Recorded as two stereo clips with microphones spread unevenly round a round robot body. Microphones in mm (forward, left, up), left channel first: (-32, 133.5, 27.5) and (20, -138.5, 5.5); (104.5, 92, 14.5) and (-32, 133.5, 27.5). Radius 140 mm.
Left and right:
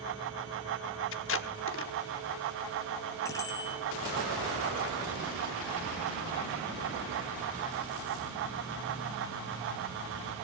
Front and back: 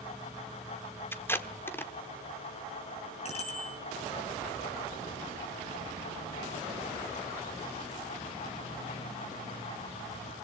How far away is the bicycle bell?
About 6 m.